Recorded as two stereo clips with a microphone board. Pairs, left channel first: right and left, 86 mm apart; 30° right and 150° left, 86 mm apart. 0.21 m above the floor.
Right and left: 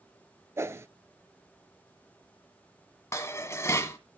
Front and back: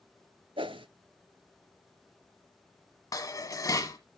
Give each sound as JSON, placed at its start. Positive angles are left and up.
{"t": 0.6, "sound": "a whoosh", "azimuth_deg": 150, "distance_m": 0.5}
{"t": 3.1, "sound": "dishes clattering", "azimuth_deg": -50, "distance_m": 1.2}